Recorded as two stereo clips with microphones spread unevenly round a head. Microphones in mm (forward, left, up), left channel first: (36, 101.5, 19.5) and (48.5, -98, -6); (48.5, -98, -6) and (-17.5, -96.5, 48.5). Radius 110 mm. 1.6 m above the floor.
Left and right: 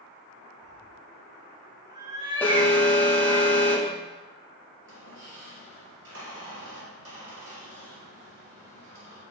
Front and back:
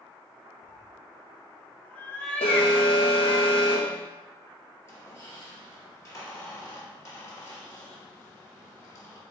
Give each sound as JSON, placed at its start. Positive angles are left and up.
{"t": 0.6, "sound": "a cat meowing", "azimuth_deg": -155, "distance_m": 0.8}
{"t": 2.4, "sound": "an alarm", "azimuth_deg": 25, "distance_m": 0.9}
{"t": 4.8, "sound": "a squeak", "azimuth_deg": -70, "distance_m": 3.0}